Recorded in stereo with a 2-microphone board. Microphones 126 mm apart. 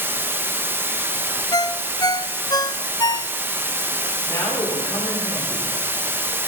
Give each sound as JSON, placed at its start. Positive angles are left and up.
{"t": 0.0, "sound": "running water", "side_deg": -15, "distance_m": 0.8}
{"t": 1.5, "sound": "a ringtone", "side_deg": 30, "distance_m": 0.5}
{"t": 4.3, "sound": "a man speaking", "side_deg": 35, "distance_m": 5.0}